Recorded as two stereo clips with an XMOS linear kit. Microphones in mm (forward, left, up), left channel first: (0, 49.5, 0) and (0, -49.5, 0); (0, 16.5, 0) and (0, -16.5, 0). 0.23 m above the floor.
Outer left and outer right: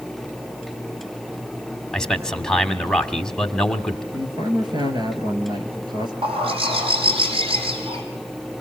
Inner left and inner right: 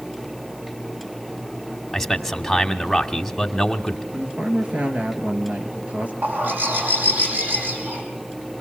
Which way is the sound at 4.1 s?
50° right (ahead or behind).